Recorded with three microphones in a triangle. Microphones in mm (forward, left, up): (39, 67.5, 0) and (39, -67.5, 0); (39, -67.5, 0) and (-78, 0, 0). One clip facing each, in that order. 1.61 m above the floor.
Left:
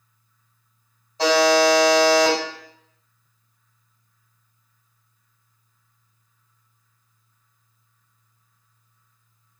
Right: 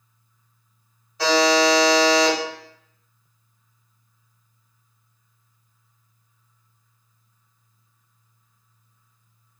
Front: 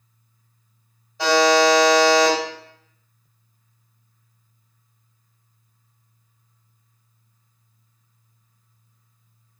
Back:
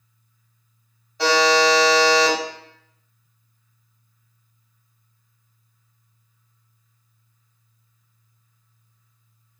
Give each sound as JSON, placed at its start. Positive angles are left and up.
{"t": 1.2, "sound": "a buzzer", "azimuth_deg": 55, "distance_m": 1.6}